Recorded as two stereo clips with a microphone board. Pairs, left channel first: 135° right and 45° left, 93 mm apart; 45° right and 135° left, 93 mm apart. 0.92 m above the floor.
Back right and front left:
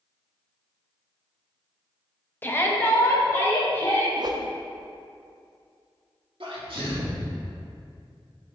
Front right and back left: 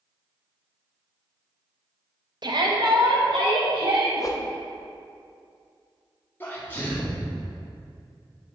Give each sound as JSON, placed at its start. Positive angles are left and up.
{"t": 2.4, "sound": "a shout", "azimuth_deg": 160, "distance_m": 0.8}
{"t": 4.2, "sound": "a whoosh", "azimuth_deg": 5, "distance_m": 0.5}
{"t": 6.4, "sound": "a sneeze", "azimuth_deg": 20, "distance_m": 1.5}